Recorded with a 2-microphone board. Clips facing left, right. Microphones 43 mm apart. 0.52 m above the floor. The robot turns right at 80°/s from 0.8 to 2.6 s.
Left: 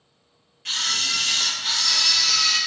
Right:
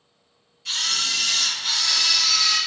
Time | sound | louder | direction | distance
0.7 | a camera shutter | even | 125° left | 1.8 m